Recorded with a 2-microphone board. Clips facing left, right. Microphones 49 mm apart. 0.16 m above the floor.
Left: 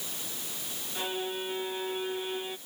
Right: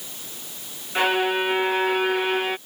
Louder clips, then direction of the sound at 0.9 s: Right 13 dB; 85° right.